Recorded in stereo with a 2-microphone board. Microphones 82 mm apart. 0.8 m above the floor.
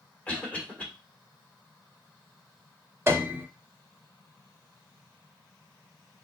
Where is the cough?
15° left (ahead or behind), 2 m.